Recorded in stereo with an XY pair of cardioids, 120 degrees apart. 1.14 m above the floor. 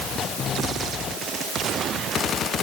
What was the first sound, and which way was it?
Only background noise.